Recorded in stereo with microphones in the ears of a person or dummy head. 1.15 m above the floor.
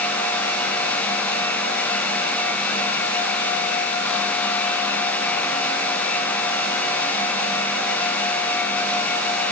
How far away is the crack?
No crack in this recording.